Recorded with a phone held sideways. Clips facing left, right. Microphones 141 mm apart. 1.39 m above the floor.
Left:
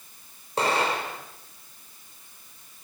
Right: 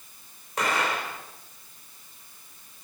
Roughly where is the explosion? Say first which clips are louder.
Left 3 dB; left.